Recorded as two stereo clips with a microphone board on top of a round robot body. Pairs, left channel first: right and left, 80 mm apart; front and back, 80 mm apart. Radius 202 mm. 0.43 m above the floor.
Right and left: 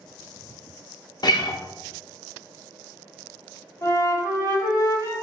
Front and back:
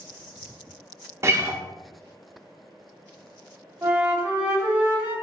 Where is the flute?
120° right, 1.8 m.